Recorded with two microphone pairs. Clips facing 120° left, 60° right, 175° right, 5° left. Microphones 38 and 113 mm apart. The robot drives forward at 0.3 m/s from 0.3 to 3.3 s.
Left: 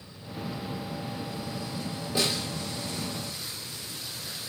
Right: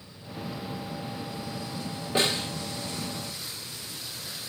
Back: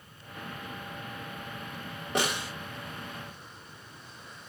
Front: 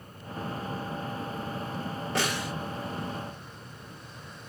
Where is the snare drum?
105° right, 1.4 m; by 2.5 s 110° right, 1.5 m.